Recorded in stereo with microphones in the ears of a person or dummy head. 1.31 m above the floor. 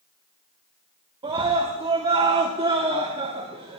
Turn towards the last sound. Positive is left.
turn(degrees=-25)  # may be behind; listen again after turning